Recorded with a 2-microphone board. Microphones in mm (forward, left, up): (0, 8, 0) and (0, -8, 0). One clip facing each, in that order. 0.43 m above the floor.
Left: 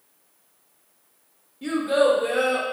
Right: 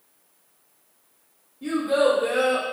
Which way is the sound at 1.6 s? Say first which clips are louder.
Left 1 dB; 35° left (ahead or behind).